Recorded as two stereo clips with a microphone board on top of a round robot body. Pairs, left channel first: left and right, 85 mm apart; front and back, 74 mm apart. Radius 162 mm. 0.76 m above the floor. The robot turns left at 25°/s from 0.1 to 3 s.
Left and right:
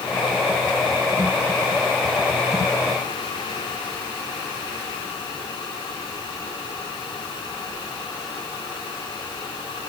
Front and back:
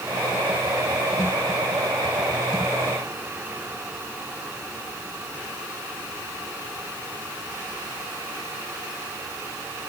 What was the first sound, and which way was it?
Only background noise.